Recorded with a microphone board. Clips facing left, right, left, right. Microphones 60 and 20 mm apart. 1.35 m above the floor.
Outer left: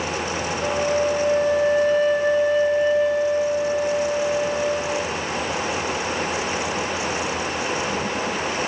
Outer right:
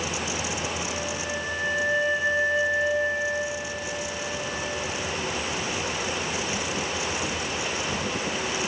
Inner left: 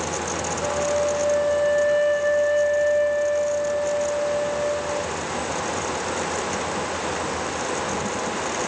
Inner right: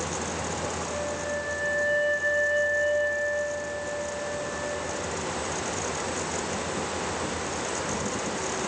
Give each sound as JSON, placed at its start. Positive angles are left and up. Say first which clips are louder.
{"t": 0.6, "sound": "a flute", "louder": "outer left 10 dB, inner left 9 dB", "side_deg": 60, "distance_m": 5.0}